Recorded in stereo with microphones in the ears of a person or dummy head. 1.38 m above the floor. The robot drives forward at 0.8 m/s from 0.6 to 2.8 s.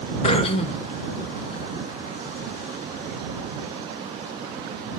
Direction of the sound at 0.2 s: 35° left (ahead or behind).